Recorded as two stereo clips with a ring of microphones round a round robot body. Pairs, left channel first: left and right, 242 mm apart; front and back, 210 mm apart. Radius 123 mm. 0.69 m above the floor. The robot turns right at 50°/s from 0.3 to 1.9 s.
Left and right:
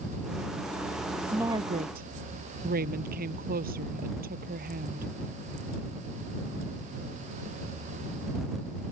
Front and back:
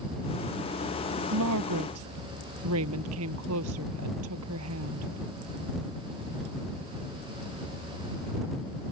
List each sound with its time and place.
1.3 s a woman speaking: 175° right; by 5.1 s 145° right